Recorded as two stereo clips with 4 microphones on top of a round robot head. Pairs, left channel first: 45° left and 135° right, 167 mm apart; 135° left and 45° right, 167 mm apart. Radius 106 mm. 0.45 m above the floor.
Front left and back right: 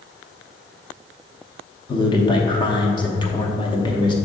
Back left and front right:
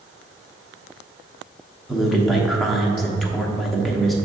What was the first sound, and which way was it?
A man speaking, 45° left.